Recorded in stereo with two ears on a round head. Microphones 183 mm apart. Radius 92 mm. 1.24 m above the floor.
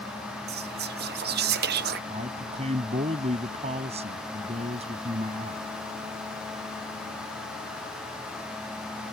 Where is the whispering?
50° right (ahead or behind).